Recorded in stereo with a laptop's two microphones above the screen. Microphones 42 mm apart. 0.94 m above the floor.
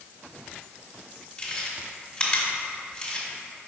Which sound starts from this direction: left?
Chewing, at 1.4 s.